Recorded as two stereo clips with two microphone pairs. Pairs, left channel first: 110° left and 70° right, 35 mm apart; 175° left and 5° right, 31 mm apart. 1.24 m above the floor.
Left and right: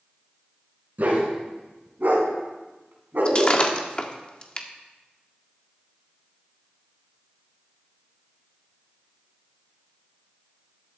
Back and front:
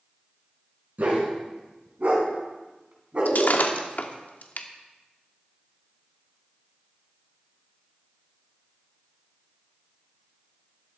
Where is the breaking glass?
165° left, 1.3 m.